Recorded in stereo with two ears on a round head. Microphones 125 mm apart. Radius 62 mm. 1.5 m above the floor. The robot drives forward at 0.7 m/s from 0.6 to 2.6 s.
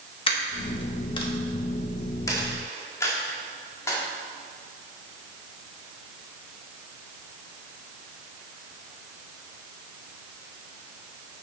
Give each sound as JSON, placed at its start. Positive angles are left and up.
{"t": 0.3, "sound": "a dropped coin", "side_deg": 40, "distance_m": 1.0}